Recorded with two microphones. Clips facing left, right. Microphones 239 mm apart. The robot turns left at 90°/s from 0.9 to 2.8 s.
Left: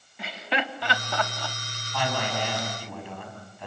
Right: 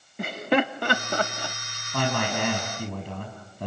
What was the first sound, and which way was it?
Laughter, 55° right (ahead or behind).